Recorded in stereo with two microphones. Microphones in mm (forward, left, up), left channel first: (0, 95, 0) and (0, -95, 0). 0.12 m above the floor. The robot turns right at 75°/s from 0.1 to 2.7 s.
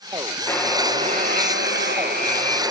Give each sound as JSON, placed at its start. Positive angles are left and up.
{"t": 0.5, "sound": "a buzzer", "azimuth_deg": 170, "distance_m": 2.0}